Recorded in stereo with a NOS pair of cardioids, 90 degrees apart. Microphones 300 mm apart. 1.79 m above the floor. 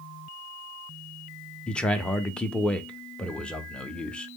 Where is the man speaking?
5° left, 0.6 m.